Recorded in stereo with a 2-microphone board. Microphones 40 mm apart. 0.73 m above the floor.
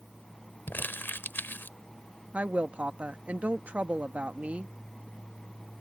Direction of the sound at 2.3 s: 35° right (ahead or behind).